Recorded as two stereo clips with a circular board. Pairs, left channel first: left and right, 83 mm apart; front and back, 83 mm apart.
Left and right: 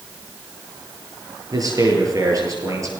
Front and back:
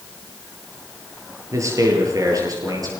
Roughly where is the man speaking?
Behind right.